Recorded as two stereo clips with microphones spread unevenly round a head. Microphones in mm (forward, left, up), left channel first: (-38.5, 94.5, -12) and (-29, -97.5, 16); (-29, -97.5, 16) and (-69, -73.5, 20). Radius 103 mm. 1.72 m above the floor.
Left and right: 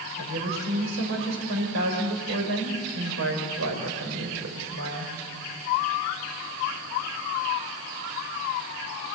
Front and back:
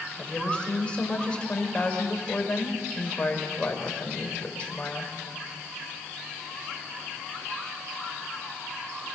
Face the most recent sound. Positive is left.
turn(degrees=-100)